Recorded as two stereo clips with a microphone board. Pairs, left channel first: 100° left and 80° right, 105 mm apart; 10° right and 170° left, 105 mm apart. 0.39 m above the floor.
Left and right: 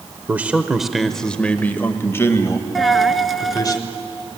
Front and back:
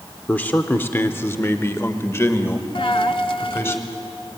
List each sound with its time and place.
0.3 s a man speaking: 50° right, 1.0 m; by 3.8 s 50° left, 2 m
2.8 s a dropped coin: 10° left, 0.8 m